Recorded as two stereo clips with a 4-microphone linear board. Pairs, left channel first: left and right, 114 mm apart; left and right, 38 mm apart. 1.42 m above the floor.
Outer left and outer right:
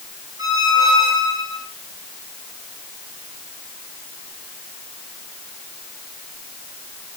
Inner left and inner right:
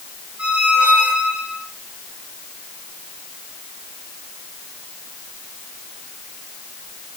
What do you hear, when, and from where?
0.4 s a squeak: 45° right (ahead or behind), 8 m